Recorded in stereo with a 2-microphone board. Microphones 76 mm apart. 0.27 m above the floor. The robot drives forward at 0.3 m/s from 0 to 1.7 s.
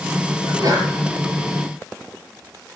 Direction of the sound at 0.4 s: 55° right (ahead or behind).